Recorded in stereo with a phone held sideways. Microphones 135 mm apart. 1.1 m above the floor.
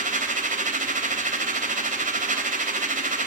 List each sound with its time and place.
0.0 s a machine running: 80° right, 3.5 m